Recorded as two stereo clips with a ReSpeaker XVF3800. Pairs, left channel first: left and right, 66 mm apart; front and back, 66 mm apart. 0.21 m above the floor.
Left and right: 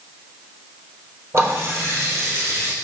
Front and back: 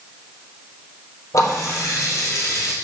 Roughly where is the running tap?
Ahead right.